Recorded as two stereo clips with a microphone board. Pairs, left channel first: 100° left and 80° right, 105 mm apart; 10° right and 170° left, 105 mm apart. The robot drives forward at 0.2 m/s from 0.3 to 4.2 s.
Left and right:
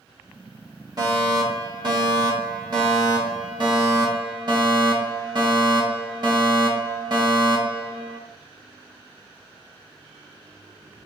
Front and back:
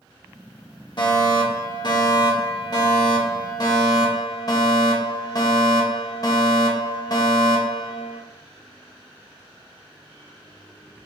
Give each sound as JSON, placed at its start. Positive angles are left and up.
{"t": 1.0, "sound": "a fire alarm", "azimuth_deg": -40, "distance_m": 2.5}